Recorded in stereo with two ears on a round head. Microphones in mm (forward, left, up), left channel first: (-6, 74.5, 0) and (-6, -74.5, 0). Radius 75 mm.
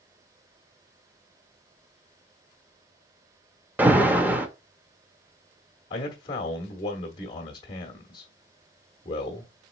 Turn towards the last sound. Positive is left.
turn(degrees=30)  # may be behind; listen again after turning